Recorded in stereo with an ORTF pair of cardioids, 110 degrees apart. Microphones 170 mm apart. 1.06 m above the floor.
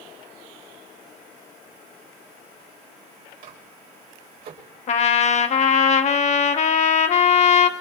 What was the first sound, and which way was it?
A microwave, 65° right.